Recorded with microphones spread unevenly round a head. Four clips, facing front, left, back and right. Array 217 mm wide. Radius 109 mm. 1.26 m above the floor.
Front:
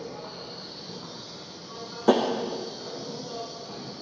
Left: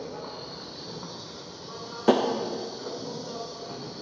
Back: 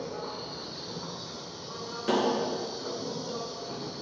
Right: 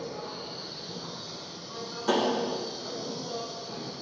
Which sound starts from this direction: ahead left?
Tapping, at 2.1 s.